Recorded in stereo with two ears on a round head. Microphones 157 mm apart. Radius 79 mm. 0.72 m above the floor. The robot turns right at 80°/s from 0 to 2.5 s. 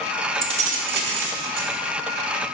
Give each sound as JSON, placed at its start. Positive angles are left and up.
{"t": 0.4, "sound": "keys jangling", "azimuth_deg": -150, "distance_m": 1.3}